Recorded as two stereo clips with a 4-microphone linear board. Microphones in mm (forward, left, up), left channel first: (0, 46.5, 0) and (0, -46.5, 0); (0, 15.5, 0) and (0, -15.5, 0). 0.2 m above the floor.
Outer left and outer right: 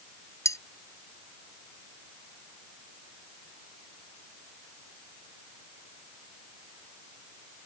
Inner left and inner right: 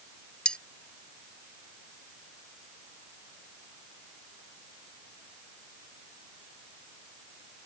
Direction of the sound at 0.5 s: 35° left (ahead or behind).